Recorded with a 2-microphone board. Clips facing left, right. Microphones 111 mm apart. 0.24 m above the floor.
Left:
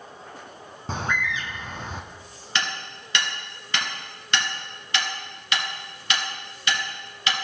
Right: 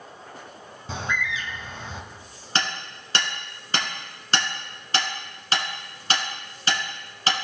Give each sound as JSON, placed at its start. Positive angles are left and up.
{"t": 0.9, "sound": "a bird", "side_deg": 50, "distance_m": 1.0}
{"t": 2.5, "sound": "hammering", "side_deg": -35, "distance_m": 2.0}